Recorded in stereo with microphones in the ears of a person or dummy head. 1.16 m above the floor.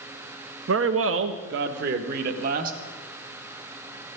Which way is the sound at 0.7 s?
70° right (ahead or behind).